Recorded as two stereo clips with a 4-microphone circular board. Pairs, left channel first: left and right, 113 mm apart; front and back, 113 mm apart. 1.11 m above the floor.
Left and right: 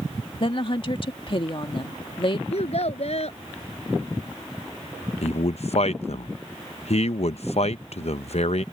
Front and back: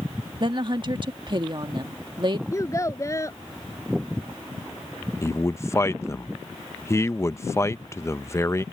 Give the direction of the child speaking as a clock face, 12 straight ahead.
10 o'clock.